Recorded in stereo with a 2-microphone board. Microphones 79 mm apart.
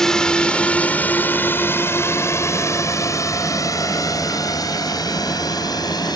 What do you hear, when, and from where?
0.0 s a drone: 5° left (ahead or behind); by 6.2 s 55° left (ahead or behind)